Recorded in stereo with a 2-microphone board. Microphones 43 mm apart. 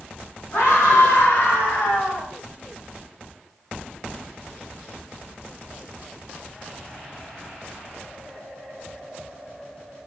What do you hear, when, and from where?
0.5 s a scream: 70° left (ahead or behind), 3 m; by 2.3 s 60° left (ahead or behind), 1.9 m